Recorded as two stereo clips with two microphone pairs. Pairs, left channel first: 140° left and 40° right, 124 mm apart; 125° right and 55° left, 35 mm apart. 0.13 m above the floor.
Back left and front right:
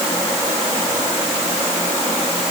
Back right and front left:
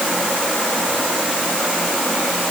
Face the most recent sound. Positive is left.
No sound to turn to.